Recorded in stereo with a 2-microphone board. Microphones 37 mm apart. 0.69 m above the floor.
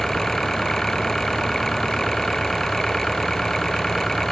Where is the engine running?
10° left (ahead or behind).